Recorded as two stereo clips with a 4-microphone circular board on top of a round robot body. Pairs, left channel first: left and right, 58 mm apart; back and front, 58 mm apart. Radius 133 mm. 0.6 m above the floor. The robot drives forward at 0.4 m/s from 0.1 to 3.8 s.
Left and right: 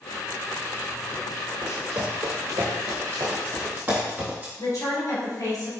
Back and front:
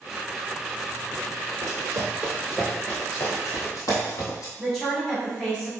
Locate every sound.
1.6 s running footsteps: 15° right, 1.1 m; by 4.5 s 160° right, 2 m
4.6 s a woman speaking: 100° left, 1.9 m